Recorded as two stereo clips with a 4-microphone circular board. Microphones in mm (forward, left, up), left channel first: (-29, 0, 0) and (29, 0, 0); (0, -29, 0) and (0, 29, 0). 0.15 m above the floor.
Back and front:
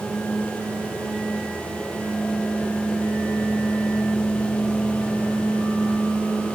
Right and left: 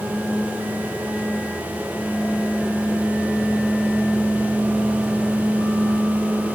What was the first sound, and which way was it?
Only background noise.